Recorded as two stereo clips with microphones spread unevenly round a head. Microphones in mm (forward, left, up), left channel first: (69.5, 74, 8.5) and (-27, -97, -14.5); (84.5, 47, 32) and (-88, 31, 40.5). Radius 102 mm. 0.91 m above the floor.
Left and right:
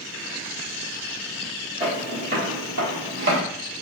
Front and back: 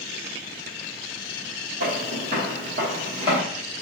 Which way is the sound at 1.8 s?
175° left.